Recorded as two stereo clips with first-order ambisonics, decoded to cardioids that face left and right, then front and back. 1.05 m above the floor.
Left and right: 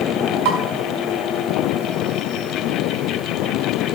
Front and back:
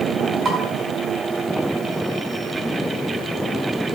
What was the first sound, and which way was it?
Dishes clattering, 110° right.